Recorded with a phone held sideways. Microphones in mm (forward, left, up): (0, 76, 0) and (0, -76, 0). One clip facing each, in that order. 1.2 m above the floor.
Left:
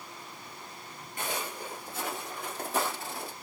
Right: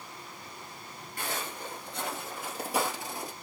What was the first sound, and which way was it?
Footsteps, 20° left (ahead or behind).